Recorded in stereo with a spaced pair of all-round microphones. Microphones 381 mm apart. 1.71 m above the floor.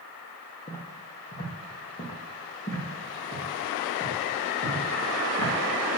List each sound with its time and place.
0.7 s footsteps: 25° left (ahead or behind), 2 m; by 5.5 s 20° left (ahead or behind), 5.5 m